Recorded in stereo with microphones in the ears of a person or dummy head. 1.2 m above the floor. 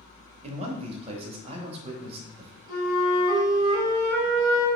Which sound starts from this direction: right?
A man speaking, at 0.4 s.